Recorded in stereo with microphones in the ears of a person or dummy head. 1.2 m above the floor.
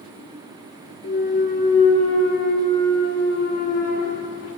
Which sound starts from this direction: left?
A clunk, at 1.0 s.